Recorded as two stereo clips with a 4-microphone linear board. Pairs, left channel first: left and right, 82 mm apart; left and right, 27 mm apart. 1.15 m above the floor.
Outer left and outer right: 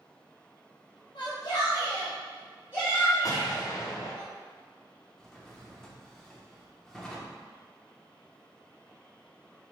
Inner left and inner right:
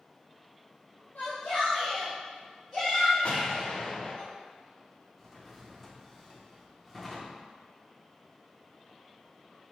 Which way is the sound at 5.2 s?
5° left (ahead or behind).